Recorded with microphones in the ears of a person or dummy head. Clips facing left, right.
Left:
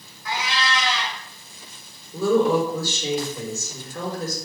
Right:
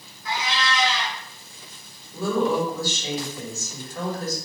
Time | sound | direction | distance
0.2 | a cat meowing | 60° left (ahead or behind) | 1.6 m
2.1 | a woman speaking | 80° left | 1.5 m